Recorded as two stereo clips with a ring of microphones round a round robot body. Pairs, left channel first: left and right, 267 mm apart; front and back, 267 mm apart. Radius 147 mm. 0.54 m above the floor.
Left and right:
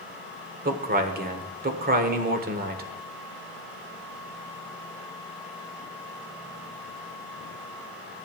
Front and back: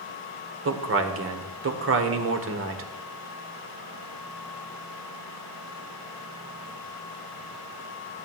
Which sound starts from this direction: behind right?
A man speaking, at 0.7 s.